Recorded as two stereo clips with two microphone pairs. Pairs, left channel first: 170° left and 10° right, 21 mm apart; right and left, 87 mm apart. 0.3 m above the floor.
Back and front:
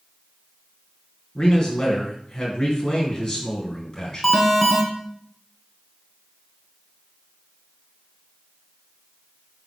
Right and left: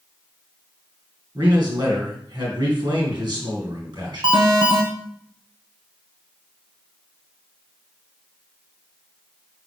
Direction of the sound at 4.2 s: 95° left.